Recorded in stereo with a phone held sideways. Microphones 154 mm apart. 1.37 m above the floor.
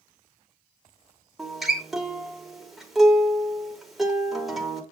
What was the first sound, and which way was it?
A guitar, centre (ahead or behind).